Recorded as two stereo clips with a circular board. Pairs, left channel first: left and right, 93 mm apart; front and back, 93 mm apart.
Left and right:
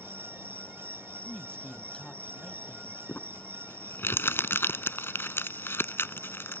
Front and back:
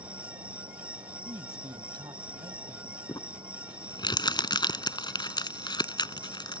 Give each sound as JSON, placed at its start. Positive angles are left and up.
{"t": 0.0, "sound": "an insect", "azimuth_deg": 165}
{"t": 1.2, "sound": "a man speaking", "azimuth_deg": 165}
{"t": 3.1, "sound": "crumpling", "azimuth_deg": 30}